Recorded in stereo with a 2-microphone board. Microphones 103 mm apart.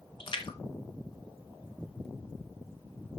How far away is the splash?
About 1.5 m.